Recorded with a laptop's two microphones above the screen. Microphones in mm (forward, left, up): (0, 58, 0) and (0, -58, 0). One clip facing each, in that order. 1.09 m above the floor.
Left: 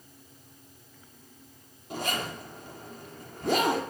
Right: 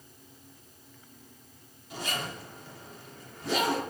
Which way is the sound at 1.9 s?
50° left (ahead or behind).